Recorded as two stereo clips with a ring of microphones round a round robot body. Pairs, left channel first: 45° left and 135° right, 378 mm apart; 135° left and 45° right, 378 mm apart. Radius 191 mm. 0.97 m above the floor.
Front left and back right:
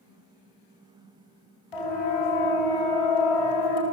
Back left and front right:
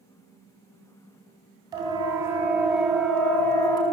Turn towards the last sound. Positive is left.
turn(degrees=55)